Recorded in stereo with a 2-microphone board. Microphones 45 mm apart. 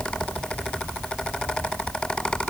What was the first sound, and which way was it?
Only background noise.